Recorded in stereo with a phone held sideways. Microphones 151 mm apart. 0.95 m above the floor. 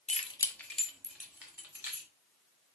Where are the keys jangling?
45° left (ahead or behind), 0.5 m; by 2.1 s 15° right (ahead or behind), 1.8 m.